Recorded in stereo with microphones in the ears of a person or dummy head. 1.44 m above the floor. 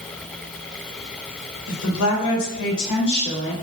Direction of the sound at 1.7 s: 80° left.